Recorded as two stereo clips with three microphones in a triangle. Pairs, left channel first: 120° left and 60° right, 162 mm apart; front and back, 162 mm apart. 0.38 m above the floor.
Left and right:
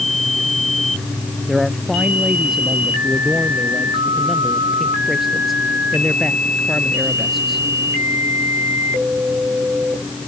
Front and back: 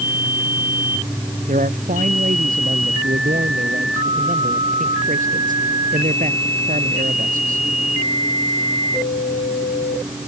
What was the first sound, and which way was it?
A man speaking, 150° right.